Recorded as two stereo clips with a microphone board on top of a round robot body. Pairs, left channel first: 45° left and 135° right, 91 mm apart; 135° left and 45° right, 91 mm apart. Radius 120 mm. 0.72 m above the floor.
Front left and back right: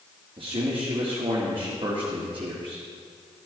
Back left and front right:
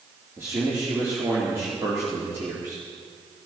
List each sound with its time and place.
0.4 s a man speaking: 110° right, 2 m